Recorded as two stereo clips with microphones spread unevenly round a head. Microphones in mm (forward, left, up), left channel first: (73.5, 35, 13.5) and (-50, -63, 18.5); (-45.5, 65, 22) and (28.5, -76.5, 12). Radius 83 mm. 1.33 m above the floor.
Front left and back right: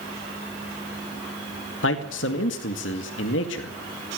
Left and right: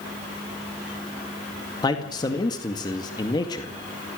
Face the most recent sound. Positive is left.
turn(degrees=50)